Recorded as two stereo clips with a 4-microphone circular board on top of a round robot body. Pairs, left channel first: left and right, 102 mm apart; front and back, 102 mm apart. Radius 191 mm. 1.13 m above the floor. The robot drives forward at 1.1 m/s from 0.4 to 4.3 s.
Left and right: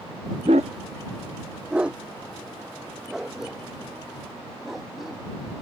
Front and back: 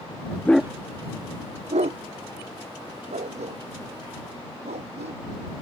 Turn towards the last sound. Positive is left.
turn(degrees=-175)